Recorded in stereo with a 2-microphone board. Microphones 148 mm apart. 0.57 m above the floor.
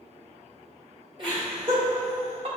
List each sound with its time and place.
1.2 s laughter: 35° right (ahead or behind), 1.7 m; by 2.5 s 45° right (ahead or behind), 1.1 m